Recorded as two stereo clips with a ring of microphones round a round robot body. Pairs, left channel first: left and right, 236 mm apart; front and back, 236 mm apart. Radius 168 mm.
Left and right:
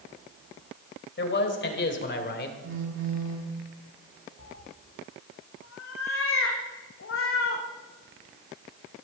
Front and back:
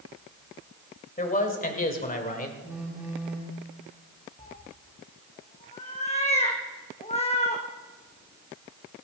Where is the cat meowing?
65° left, 2.5 m.